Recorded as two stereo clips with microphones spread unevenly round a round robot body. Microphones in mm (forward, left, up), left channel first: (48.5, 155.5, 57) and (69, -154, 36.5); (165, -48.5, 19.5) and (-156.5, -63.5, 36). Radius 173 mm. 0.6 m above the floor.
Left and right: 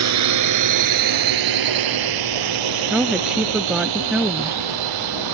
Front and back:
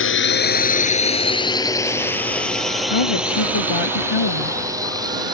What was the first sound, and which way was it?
A drone, 50° right.